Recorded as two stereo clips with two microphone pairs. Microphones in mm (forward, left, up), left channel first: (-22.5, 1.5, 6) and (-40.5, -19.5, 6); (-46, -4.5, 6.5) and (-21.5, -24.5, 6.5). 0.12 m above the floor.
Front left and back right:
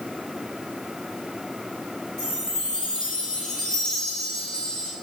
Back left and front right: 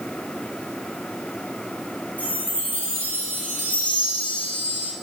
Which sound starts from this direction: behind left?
A chime, at 2.2 s.